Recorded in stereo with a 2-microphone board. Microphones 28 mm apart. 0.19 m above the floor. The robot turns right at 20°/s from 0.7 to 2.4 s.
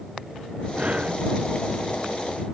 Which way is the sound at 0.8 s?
50° right (ahead or behind).